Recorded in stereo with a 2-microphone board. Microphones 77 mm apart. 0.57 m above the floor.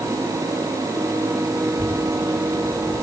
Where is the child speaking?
35° right (ahead or behind), 5 m; by 3.0 s 30° right (ahead or behind), 4.5 m.